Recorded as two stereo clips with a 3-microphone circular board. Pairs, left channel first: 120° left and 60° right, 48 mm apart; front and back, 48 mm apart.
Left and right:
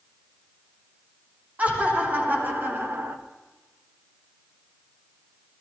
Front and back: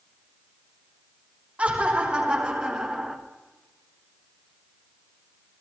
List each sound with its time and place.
1.6 s laughter: 115° right, 3 m; by 3.2 s 95° right, 1.3 m